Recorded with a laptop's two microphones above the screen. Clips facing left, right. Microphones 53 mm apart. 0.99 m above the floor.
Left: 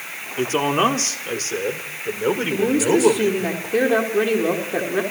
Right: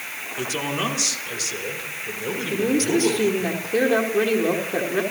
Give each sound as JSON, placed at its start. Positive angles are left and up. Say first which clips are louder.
{"t": 0.4, "sound": "a man speaking", "louder": "left 8 dB", "side_deg": 40, "distance_m": 3.5}
{"t": 2.5, "sound": "a woman speaking", "louder": "left 1 dB", "side_deg": 10, "distance_m": 3.0}